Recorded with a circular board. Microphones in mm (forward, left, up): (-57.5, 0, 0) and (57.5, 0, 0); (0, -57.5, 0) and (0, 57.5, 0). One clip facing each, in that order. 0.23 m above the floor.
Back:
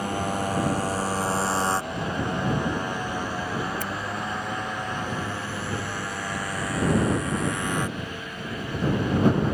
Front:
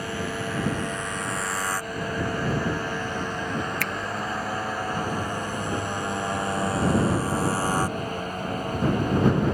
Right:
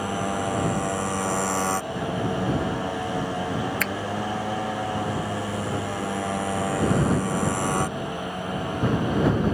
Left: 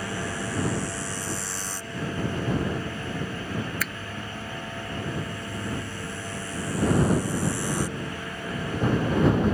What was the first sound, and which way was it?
A motorcycle, 130° right.